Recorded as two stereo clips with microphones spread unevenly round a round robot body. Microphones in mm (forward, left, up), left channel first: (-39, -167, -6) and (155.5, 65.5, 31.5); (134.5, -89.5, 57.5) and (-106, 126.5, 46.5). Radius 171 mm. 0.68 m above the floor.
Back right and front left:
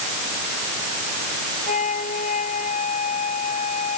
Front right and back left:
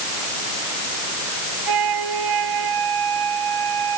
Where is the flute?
160° left.